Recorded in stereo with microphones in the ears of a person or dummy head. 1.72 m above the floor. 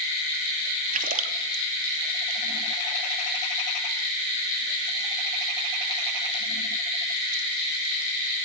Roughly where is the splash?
Right.